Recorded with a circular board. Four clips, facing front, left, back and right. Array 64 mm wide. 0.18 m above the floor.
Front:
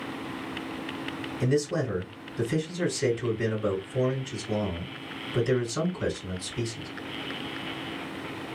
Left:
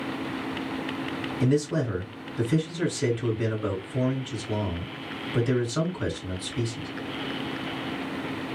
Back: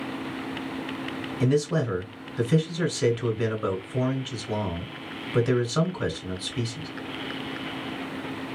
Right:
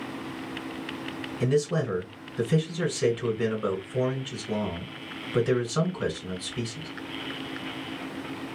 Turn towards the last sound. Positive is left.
turn(degrees=-175)